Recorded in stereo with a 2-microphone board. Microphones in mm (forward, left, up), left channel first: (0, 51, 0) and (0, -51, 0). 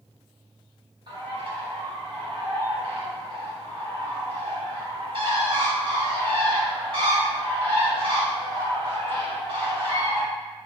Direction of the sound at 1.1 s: 60° right (ahead or behind).